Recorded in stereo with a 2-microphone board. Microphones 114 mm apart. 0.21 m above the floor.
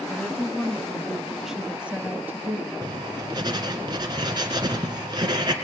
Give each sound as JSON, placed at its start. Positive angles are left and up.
{"t": 0.1, "sound": "a woman speaking", "side_deg": 10, "distance_m": 2.5}
{"t": 2.8, "sound": "writing", "side_deg": -40, "distance_m": 2.0}